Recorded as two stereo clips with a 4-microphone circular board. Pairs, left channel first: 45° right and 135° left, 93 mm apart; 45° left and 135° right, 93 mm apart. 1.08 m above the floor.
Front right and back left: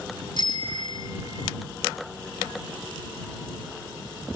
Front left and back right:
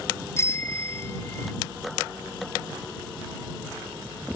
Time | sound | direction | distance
0.4 | a bicycle bell | 15° right | ?